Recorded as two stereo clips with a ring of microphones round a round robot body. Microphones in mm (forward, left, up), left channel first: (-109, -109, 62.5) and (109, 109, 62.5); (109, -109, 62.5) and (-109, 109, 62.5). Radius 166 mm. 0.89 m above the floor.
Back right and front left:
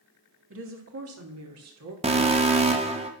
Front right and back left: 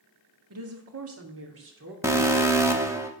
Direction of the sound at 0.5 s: 95° left.